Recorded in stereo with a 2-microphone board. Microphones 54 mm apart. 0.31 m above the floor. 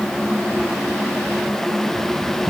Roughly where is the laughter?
I don't hear laughter.